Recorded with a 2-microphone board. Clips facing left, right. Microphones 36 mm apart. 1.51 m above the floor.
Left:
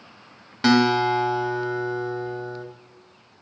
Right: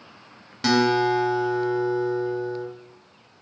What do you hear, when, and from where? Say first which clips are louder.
0.6 s a guitar: left 1 dB; 15° left (ahead or behind), 0.7 m